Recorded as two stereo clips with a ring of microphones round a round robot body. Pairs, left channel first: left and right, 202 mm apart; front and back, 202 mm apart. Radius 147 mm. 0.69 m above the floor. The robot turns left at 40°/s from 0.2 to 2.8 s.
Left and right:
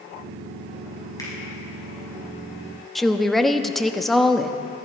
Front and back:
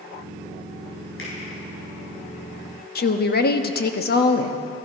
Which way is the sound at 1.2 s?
20° left.